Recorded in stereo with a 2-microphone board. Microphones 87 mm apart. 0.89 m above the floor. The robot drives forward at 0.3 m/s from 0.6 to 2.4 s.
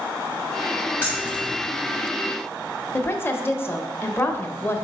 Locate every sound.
1.0 s keys jangling: 25° left (ahead or behind), 2.0 m
2.9 s a woman speaking: 25° left (ahead or behind), 0.6 m